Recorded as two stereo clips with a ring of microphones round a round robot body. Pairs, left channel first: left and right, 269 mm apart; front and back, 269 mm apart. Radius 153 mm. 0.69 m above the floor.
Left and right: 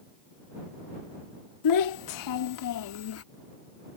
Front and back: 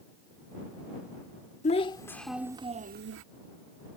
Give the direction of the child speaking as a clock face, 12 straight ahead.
10 o'clock.